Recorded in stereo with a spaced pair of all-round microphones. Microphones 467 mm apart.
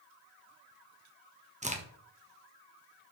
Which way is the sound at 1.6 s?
15° right (ahead or behind).